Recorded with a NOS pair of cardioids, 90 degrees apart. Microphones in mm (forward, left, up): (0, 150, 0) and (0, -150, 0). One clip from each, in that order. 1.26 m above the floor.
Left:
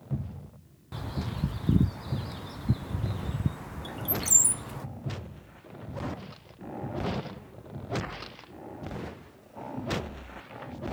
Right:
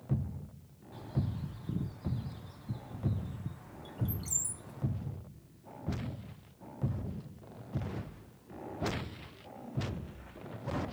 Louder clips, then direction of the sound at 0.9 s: Left 4 dB; 55° left.